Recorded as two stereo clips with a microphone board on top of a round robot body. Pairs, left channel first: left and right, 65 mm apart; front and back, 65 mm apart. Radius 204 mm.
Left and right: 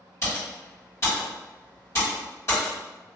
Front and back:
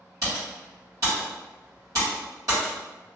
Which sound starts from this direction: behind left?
Typing on a keyboard, at 0.2 s.